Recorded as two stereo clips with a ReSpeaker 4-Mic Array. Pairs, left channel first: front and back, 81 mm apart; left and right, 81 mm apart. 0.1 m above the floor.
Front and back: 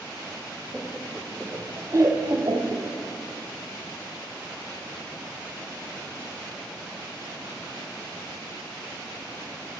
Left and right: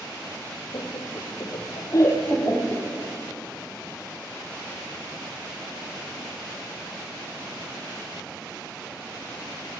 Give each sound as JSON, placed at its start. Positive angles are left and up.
{"t": 0.7, "sound": "laughter", "azimuth_deg": 100, "distance_m": 3.5}